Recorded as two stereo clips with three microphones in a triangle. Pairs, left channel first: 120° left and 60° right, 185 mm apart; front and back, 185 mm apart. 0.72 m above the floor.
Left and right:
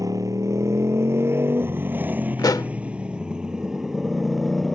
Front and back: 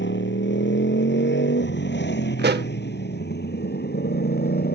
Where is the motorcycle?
10° left; by 4.8 s 30° left.